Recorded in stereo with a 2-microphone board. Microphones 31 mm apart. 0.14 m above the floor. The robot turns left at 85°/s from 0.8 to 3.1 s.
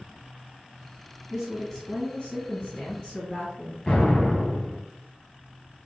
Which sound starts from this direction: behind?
A woman speaking, at 1.3 s.